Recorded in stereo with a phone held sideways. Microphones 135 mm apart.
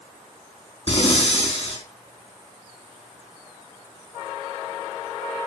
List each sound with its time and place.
0.9 s breathing: 50° left (ahead or behind), 4 m